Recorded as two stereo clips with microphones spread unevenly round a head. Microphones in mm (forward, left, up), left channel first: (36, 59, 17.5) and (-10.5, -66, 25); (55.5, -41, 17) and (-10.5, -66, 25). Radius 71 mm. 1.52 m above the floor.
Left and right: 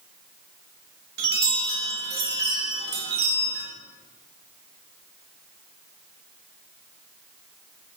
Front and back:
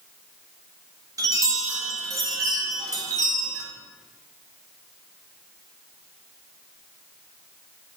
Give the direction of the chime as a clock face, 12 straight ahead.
4 o'clock.